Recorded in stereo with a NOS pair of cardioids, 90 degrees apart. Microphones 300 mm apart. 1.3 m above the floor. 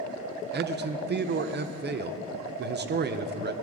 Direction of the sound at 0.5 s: 35° right.